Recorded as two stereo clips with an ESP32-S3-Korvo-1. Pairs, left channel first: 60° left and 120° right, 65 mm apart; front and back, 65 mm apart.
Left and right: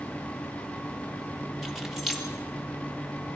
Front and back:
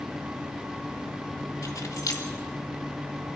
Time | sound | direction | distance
1.6 | keys jangling | 30° right | 2.5 m